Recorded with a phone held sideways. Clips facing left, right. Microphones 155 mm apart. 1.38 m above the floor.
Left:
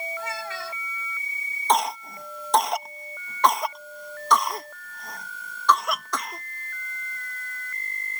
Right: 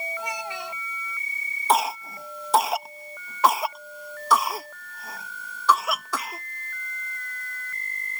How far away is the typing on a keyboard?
I don't hear typing on a keyboard.